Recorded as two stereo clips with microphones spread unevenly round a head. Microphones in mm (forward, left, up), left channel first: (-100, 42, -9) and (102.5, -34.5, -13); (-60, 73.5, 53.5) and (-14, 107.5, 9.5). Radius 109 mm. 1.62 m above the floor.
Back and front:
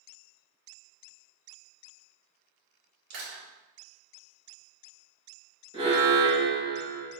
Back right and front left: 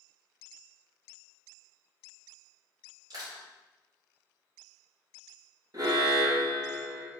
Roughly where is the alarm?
Ahead left.